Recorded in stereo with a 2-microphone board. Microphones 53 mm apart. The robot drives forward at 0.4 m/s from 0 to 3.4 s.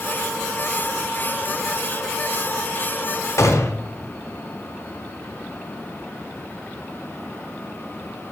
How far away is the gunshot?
About 1.0 m.